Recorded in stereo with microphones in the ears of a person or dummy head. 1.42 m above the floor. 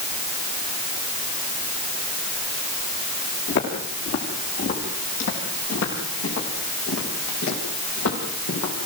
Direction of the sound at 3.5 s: 65° left (ahead or behind).